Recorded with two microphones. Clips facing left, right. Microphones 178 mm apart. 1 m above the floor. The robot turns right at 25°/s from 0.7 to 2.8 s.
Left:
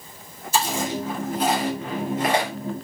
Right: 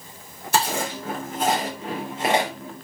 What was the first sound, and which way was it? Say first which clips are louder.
Chewing: even; 65° right (ahead or behind).